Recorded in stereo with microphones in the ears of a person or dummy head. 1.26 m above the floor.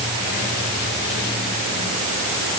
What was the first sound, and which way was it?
Only background noise.